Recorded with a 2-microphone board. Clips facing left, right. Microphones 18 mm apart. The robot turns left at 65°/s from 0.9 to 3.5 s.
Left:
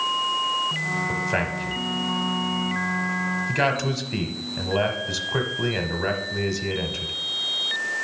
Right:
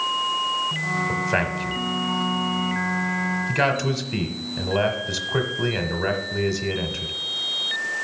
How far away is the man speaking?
About 1.0 m.